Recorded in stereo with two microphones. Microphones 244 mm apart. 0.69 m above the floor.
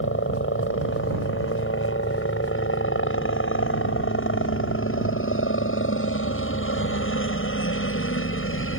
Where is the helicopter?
55° left (ahead or behind).